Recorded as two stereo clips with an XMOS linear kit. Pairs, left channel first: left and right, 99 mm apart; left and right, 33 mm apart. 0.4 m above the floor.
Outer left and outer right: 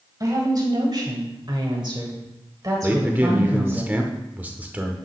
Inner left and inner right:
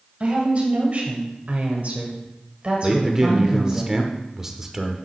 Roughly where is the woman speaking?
Right.